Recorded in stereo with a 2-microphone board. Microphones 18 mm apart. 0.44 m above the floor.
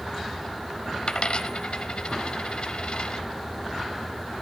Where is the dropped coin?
60° left (ahead or behind), 0.8 m.